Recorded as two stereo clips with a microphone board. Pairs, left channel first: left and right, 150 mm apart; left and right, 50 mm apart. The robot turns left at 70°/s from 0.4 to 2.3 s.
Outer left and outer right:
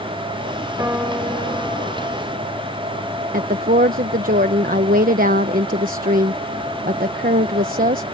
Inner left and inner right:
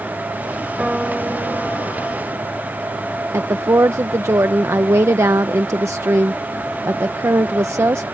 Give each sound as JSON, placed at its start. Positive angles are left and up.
{"t": 0.8, "sound": "a piano", "azimuth_deg": -155}
{"t": 3.3, "sound": "a woman speaking", "side_deg": -70}